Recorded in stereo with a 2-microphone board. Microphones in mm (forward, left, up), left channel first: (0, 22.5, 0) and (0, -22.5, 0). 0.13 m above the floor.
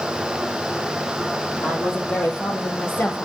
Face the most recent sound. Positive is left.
turn(degrees=45)  # may be behind; listen again after turning